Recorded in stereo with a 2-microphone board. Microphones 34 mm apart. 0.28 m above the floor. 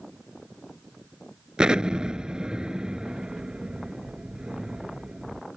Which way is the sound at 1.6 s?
25° right (ahead or behind).